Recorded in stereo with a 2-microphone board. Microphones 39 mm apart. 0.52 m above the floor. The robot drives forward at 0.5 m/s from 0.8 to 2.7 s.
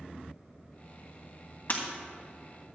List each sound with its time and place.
1.7 s breaking glass: 50° left (ahead or behind), 2 m; by 1.9 s 45° left (ahead or behind), 2.5 m